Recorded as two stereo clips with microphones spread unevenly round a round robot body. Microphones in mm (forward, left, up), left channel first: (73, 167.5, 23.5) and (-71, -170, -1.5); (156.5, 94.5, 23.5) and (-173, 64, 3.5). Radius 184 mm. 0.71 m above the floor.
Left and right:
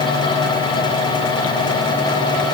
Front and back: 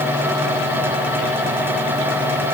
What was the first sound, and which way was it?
Only background noise.